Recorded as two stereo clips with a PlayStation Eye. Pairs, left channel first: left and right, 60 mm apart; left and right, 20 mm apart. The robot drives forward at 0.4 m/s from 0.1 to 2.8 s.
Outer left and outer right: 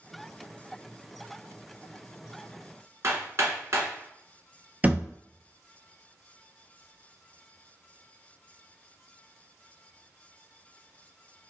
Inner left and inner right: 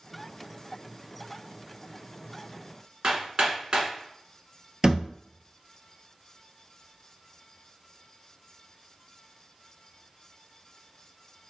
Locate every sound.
3.0 s hammering: 50° right (ahead or behind), 1.3 m
4.8 s a thud: 25° right (ahead or behind), 0.6 m